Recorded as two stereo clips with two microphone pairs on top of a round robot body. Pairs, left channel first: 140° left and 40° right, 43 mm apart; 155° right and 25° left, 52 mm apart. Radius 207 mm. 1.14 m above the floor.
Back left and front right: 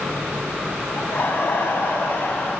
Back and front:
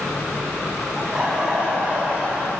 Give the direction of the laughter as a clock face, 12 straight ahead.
9 o'clock.